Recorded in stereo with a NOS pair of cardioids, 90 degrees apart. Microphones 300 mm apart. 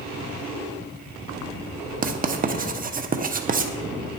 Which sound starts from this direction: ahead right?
Writing, at 2.0 s.